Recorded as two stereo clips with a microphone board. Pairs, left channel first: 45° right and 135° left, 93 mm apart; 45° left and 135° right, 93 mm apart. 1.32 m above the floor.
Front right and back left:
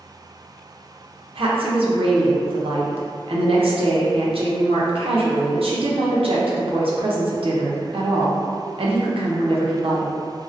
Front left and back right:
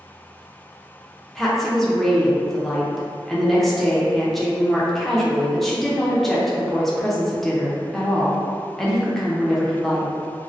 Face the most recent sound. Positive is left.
turn(degrees=135)